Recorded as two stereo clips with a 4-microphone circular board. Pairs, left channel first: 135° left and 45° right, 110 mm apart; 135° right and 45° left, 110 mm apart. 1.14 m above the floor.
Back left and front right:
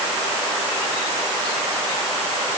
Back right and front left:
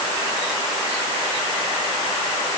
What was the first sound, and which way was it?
Only background noise.